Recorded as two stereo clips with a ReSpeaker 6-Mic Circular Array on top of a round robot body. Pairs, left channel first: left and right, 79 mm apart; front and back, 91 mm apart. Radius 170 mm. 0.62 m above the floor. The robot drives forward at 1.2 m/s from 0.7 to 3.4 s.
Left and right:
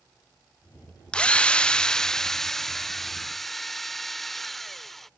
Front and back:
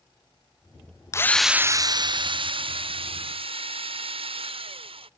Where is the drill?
20° left; by 5.1 s 175° left.